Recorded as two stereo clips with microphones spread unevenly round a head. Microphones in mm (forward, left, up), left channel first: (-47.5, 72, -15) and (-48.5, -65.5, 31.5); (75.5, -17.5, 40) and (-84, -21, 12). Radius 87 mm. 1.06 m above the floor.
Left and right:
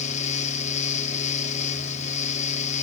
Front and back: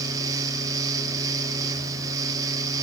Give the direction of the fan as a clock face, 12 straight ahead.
8 o'clock.